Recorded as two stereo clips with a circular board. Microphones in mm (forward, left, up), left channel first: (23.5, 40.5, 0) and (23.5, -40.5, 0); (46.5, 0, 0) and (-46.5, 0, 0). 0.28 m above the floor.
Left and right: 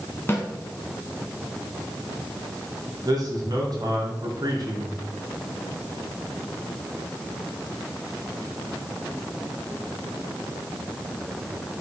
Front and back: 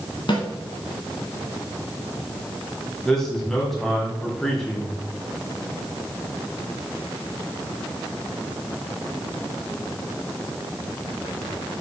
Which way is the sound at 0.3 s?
30° left.